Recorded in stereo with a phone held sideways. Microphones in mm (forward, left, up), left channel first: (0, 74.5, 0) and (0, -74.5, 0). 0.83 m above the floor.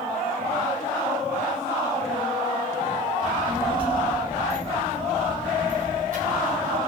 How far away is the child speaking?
About 4.5 m.